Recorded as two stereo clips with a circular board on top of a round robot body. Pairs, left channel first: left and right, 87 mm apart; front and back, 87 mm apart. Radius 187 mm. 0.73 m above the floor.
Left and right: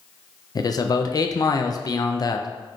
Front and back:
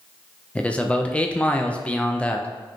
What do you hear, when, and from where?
0.6 s a man speaking: 70° left, 0.6 m